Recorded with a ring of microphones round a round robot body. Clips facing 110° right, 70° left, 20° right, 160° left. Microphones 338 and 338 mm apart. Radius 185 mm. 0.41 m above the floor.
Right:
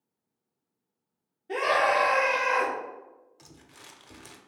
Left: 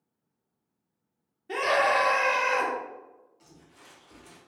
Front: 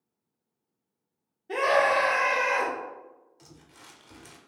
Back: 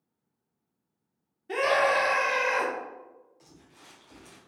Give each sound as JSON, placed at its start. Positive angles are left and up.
{"t": 1.5, "sound": "a scream", "azimuth_deg": 110, "distance_m": 0.8}
{"t": 3.4, "sound": "crumpling", "azimuth_deg": -90, "distance_m": 0.6}